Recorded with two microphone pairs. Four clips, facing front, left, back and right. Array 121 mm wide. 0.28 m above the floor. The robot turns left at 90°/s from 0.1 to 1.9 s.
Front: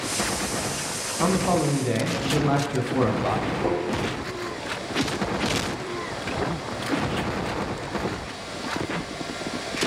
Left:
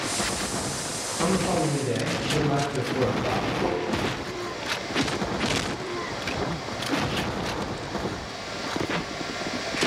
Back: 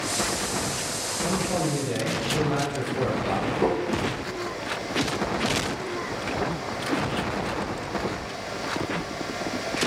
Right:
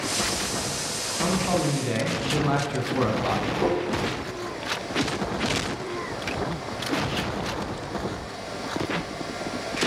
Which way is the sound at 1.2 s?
15° left.